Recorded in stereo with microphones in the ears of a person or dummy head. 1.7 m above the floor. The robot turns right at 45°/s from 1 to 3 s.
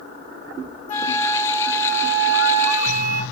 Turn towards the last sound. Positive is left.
turn(degrees=-120)